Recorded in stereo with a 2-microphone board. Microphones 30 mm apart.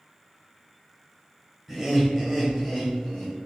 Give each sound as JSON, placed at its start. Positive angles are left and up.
{"t": 1.7, "sound": "laughter", "side_deg": 0, "distance_m": 1.5}